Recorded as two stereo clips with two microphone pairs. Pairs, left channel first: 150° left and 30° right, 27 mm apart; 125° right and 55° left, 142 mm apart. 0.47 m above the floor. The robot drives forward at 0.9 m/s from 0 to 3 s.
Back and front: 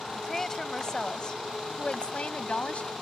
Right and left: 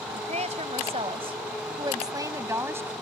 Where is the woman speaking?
80° left; by 2.9 s 130° left.